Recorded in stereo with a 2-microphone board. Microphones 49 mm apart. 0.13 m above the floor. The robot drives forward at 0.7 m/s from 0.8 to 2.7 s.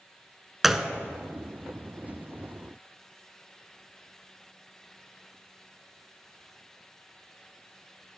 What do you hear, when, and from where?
0.6 s a gunshot: 5° right (ahead or behind), 0.5 m